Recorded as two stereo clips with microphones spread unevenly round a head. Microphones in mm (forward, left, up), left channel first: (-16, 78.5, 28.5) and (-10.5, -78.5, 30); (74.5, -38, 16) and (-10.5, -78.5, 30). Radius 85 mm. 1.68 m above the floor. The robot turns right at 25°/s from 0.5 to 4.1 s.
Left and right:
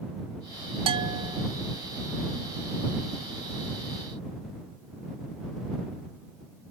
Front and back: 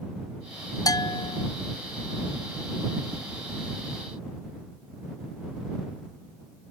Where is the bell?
25° right; by 1.5 s 10° right.